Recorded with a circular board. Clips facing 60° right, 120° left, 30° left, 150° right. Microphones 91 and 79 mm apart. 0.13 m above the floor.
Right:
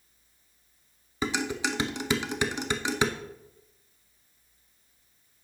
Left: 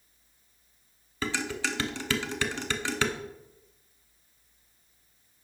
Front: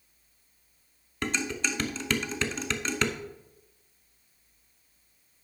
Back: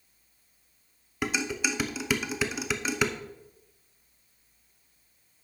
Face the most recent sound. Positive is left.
turn(degrees=-85)